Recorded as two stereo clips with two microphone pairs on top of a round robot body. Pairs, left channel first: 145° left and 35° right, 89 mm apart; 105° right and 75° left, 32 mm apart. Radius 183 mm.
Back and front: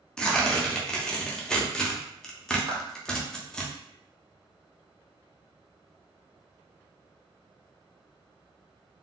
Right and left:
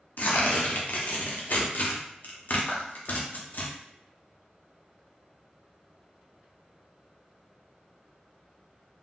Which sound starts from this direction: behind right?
Tearing paper, at 0.2 s.